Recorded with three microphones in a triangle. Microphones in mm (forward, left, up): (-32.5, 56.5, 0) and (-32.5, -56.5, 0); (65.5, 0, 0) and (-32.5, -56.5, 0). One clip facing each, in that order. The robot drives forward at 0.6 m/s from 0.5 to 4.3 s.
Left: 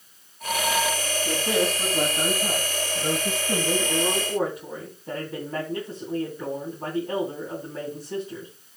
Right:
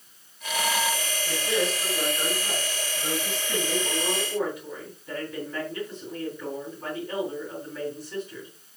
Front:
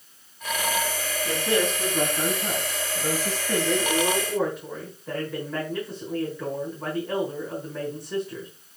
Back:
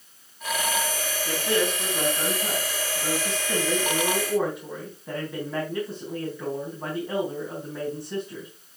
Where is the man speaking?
90° left, 3 m; by 8.5 s 125° left, 3.5 m.